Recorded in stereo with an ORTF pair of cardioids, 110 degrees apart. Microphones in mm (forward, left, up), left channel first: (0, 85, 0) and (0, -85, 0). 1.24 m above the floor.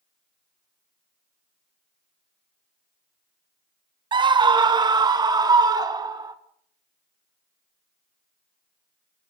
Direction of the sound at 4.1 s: 30° right.